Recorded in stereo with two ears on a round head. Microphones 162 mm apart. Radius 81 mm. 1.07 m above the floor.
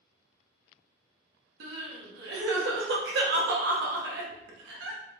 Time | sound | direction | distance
1.6 | crying | 65° right (ahead or behind) | 0.9 m